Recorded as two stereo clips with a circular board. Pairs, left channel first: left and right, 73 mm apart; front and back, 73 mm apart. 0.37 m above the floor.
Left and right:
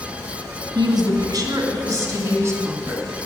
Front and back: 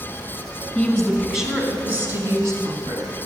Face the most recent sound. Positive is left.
turn(degrees=-150)